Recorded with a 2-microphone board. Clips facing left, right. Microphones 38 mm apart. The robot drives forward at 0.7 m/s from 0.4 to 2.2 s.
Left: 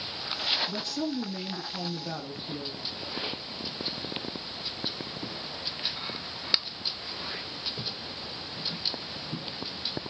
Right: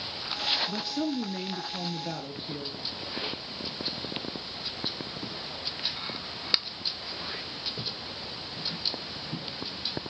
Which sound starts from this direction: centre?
A woman speaking, at 0.7 s.